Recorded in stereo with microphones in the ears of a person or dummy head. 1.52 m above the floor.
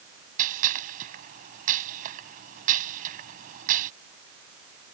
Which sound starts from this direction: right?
A gunshot, at 0.4 s.